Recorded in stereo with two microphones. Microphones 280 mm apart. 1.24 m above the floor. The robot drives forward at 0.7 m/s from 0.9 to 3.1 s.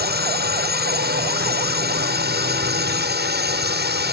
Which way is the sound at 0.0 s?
35° right (ahead or behind).